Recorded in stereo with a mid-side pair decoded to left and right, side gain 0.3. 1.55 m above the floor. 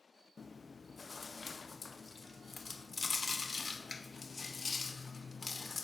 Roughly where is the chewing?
Ahead left.